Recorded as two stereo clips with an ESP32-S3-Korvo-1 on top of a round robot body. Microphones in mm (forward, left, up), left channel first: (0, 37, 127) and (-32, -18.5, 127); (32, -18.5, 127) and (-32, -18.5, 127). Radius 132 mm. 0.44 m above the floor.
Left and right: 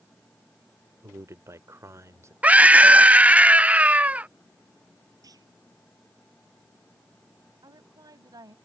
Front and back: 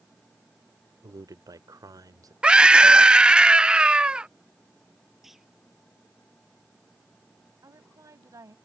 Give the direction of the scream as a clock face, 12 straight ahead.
4 o'clock.